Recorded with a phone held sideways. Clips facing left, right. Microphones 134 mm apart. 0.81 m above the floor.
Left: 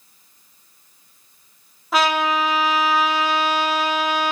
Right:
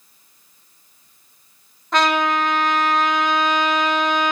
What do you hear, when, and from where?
1.9 s a trumpet: 5° left (ahead or behind), 0.9 m